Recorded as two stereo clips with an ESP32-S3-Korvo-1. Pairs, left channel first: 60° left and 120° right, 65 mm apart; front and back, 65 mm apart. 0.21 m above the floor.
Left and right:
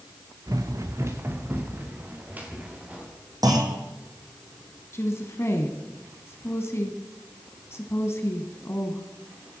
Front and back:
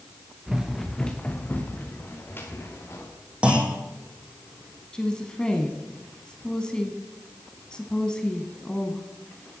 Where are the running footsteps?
100° right, 1.6 m; by 3.1 s 50° right, 4.5 m.